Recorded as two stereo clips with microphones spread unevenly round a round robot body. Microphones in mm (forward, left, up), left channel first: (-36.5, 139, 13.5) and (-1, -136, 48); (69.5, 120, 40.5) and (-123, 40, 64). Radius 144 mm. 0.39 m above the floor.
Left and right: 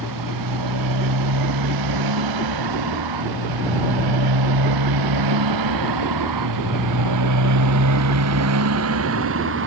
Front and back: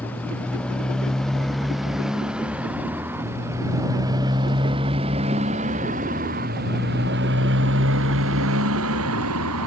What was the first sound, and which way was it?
A motorcycle, 60° right.